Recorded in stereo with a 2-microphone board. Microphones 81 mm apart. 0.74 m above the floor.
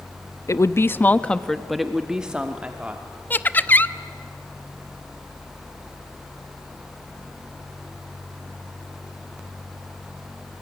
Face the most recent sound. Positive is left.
turn(degrees=25)  # may be behind; listen again after turning